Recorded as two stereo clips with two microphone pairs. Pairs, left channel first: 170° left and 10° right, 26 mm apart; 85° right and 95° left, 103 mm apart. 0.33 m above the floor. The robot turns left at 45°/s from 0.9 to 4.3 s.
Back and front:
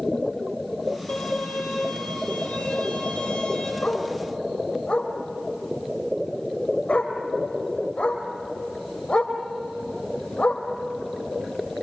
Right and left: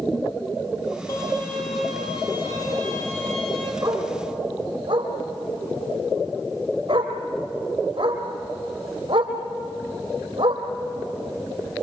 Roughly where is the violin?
Behind right.